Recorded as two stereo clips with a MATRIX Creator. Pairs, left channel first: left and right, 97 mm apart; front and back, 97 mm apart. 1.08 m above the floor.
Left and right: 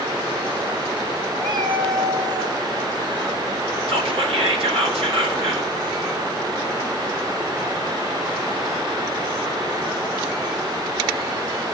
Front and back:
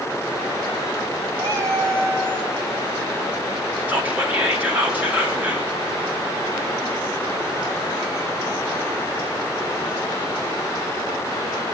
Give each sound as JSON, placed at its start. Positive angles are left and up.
{"t": 1.4, "sound": "a cat meowing", "azimuth_deg": -125, "distance_m": 1.6}
{"t": 3.9, "sound": "whispering", "azimuth_deg": -105, "distance_m": 2.5}